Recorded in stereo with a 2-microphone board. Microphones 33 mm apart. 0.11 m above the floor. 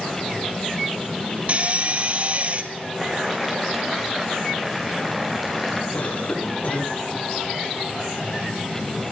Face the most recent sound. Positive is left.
turn(degrees=70)  # may be behind; listen again after turning